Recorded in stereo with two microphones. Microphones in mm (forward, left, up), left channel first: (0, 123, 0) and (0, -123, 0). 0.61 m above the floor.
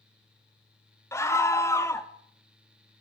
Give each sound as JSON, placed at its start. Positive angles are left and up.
{"t": 1.1, "sound": "a scream", "side_deg": 10, "distance_m": 1.0}